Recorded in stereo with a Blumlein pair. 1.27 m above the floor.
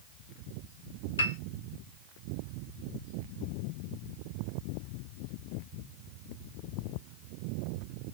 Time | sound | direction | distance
1.2 | a piano | 65° left | 0.8 m